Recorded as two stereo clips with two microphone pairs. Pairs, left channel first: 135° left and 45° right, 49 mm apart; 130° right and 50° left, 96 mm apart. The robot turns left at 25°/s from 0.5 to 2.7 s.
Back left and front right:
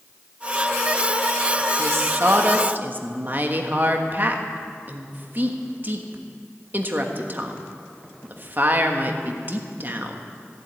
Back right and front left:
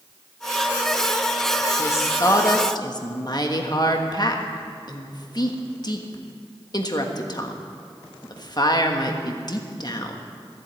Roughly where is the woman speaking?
Ahead right.